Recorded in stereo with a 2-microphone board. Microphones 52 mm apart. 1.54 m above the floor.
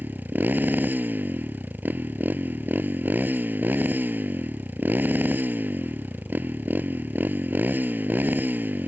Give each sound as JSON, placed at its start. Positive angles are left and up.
{"t": 0.0, "sound": "a motorcycle", "side_deg": -40}